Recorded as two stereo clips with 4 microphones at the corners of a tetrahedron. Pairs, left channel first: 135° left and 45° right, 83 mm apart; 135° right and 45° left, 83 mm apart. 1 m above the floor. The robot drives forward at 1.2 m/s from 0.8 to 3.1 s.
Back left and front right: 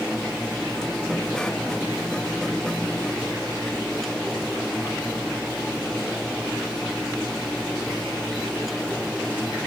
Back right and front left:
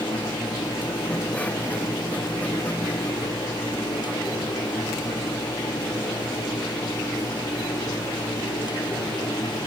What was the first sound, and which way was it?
Only background noise.